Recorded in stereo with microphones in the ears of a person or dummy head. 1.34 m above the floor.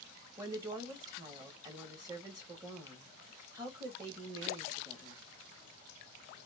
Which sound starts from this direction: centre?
A woman speaking, at 0.4 s.